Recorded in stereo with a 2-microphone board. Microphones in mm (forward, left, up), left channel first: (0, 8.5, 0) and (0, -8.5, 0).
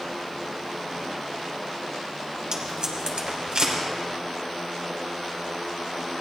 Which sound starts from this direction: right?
Tape being pulled, at 2.5 s.